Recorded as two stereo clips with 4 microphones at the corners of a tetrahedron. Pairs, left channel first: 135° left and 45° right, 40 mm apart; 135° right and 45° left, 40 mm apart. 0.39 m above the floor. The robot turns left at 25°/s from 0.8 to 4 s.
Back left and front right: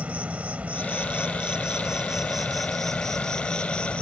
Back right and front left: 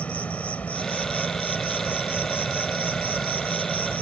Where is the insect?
90° right; by 4.0 s 170° right.